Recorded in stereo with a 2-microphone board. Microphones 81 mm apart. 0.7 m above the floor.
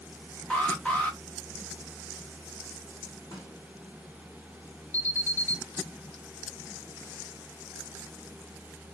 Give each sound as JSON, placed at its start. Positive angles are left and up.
{"t": 0.5, "sound": "an alarm", "side_deg": 15, "distance_m": 0.8}
{"t": 3.3, "sound": "a snare drum", "side_deg": 55, "distance_m": 2.5}
{"t": 4.9, "sound": "an alarm", "side_deg": 30, "distance_m": 0.8}